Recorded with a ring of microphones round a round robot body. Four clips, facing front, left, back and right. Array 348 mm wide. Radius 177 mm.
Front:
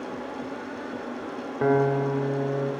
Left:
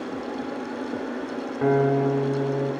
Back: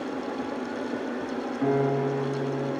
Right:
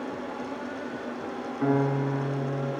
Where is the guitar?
25° left, 1.0 m.